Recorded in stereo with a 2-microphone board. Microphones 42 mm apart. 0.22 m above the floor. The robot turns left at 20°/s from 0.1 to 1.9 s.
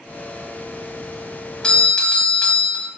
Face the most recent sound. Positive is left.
turn(degrees=20)  # may be behind; listen again after turning